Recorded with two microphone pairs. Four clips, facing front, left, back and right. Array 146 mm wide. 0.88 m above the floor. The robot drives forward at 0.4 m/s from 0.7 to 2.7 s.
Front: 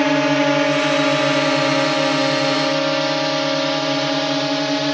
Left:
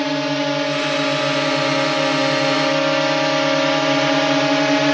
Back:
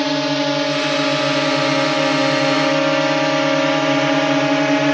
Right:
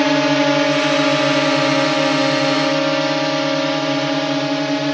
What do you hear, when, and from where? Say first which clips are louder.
0.0 s a drone: right 5 dB, front 3 dB; 65° right; by 4.9 s 120° left